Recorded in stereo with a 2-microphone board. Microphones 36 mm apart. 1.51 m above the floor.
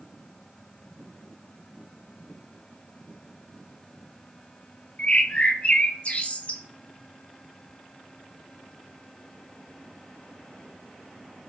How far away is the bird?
About 1.0 m.